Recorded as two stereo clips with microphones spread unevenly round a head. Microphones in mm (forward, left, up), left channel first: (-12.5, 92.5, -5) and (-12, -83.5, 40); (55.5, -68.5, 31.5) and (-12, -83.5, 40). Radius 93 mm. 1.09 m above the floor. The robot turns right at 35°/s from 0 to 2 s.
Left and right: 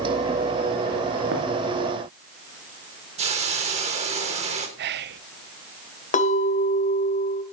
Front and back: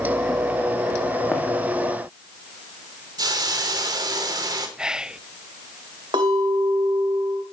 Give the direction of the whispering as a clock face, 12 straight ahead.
3 o'clock.